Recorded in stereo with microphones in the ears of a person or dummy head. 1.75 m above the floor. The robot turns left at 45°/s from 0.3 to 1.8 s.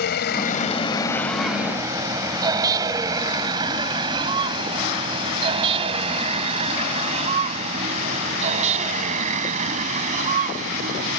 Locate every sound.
0.0 s a vehicle: 55° left (ahead or behind); by 11.2 s 45° right (ahead or behind)